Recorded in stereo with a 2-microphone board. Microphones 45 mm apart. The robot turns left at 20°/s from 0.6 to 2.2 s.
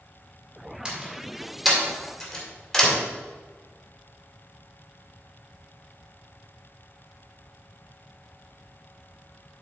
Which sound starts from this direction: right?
A door slam, at 0.8 s.